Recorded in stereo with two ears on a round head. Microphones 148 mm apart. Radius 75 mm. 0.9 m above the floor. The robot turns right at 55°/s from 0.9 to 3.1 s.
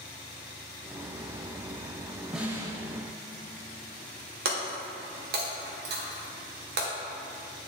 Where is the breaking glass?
60° right (ahead or behind), 1.3 m.